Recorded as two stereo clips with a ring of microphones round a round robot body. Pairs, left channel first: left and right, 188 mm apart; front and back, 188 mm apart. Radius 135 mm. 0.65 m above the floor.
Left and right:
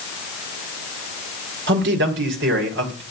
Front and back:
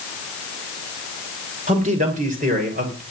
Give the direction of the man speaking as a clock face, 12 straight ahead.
4 o'clock.